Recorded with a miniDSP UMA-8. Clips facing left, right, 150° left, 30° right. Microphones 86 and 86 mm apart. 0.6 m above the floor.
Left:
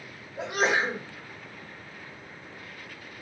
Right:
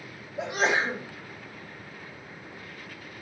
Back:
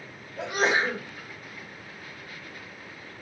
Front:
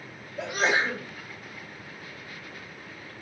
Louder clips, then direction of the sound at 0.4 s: Even, back 1 dB; 120° left.